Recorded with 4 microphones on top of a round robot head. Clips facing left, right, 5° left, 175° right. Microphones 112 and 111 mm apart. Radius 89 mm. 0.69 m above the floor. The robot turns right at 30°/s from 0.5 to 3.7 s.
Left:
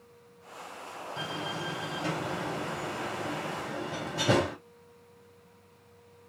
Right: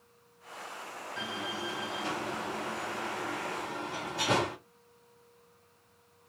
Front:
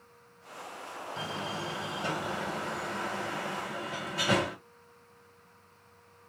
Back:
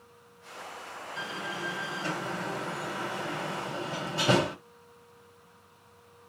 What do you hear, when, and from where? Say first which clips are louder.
1.2 s a door slam: left 2 dB, even; 50° left, 2.5 m; by 4.6 s 125° left, 2.5 m